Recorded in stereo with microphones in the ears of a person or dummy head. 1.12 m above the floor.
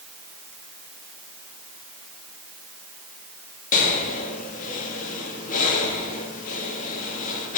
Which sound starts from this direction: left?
Breathing, at 3.7 s.